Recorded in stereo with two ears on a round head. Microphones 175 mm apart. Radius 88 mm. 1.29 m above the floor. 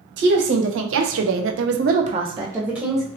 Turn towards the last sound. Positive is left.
turn(degrees=0)  # may be behind; listen again after turning